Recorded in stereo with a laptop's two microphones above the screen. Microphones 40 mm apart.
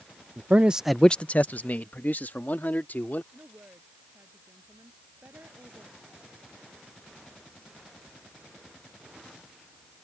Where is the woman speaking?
75° right (ahead or behind).